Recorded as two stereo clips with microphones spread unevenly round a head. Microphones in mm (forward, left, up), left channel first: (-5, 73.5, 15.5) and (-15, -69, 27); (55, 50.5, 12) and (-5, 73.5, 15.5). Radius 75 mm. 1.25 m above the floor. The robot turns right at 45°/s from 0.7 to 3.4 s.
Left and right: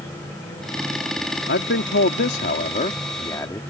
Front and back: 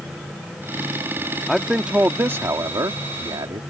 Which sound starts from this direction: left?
A man speaking, at 1.5 s.